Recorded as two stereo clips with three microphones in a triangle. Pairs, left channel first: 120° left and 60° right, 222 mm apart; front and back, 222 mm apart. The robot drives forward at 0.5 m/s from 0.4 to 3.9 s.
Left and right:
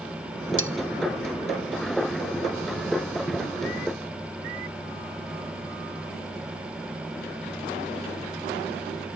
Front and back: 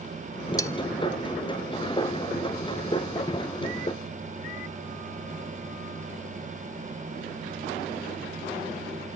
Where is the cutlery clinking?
70° right, 1.1 m; by 0.7 s 75° right, 1.0 m.